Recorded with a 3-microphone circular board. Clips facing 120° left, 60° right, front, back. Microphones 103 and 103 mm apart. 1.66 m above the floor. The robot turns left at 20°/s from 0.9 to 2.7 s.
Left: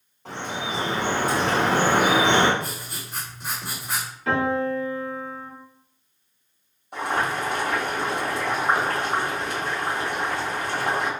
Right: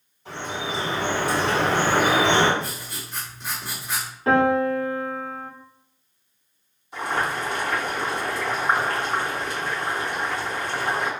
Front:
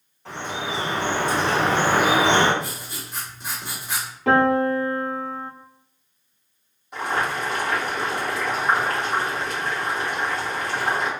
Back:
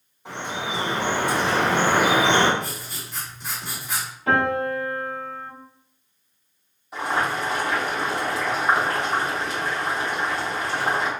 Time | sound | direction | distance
0.2 | dripping | 100° left | 1.9 m
2.6 | writing | 45° left | 2.0 m
4.3 | a piano | 5° right | 1.0 m
6.9 | boiling | 95° left | 1.5 m